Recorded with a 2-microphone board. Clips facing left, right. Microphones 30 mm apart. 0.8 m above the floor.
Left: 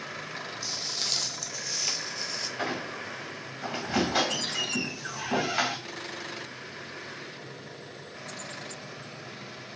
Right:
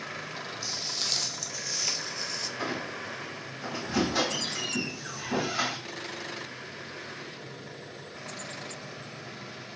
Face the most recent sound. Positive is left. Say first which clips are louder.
# left 2 dB
turn(degrees=70)  # may be behind; listen again after turning